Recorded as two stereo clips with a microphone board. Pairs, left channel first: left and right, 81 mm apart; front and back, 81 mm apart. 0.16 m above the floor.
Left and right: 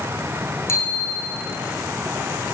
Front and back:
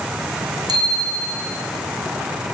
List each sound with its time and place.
0.7 s a bicycle bell: 145° left, 6.5 m